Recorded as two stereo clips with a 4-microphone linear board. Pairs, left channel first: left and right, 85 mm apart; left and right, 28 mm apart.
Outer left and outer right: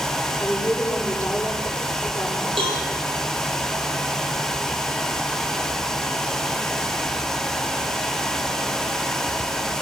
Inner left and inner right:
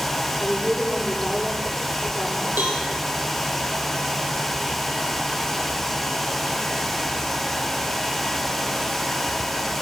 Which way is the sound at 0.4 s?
15° left (ahead or behind).